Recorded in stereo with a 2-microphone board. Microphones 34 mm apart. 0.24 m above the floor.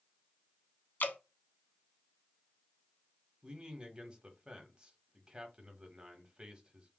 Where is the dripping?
70° left (ahead or behind), 0.6 m.